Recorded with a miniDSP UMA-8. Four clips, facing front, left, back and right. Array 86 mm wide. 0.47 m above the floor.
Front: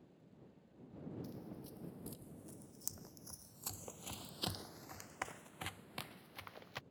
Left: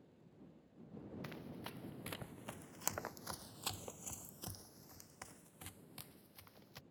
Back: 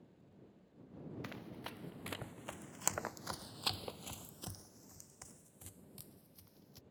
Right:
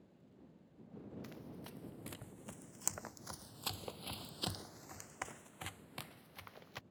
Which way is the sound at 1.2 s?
155° left.